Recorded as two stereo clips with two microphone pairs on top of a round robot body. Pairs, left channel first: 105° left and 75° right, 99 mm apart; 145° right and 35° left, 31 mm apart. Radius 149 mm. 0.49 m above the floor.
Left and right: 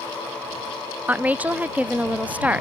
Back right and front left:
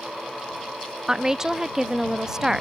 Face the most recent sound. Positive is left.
turn(degrees=20)